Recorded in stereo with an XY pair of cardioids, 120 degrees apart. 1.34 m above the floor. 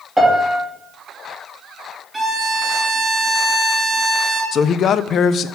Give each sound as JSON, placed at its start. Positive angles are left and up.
{"t": 0.2, "sound": "a piano", "azimuth_deg": -10, "distance_m": 3.0}
{"t": 2.1, "sound": "a violin", "azimuth_deg": -20, "distance_m": 3.5}
{"t": 4.5, "sound": "a man speaking", "azimuth_deg": 50, "distance_m": 0.5}